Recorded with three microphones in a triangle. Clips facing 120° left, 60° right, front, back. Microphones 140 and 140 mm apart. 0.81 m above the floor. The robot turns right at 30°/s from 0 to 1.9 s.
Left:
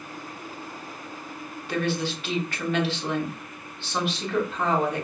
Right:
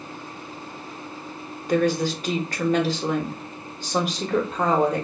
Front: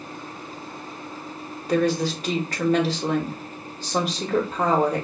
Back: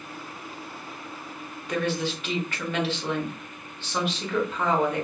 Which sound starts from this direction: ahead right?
A woman speaking, at 1.7 s.